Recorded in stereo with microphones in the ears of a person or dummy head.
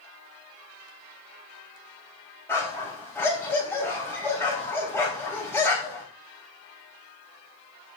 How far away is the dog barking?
About 3 m.